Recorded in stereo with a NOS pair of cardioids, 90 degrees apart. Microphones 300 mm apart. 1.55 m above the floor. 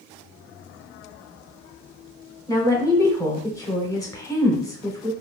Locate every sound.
2.5 s a woman speaking: 10° left, 0.8 m